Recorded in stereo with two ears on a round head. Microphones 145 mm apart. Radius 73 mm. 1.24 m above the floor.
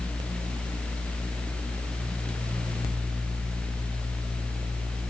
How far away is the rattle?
I don't hear a rattle.